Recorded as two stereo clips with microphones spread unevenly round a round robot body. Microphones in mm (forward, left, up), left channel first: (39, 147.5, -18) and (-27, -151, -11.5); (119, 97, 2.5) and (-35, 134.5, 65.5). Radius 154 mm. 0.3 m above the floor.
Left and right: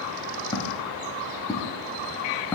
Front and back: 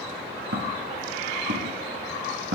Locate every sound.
0.5 s footsteps: 155° left, 7 m; by 2.5 s 160° left, 6 m